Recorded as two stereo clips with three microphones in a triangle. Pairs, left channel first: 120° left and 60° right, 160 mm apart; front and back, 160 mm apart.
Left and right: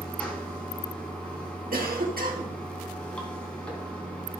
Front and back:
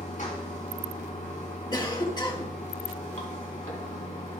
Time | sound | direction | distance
0.0 | running water | 35° left | 2.5 m
1.7 | a cough | 60° right | 1.7 m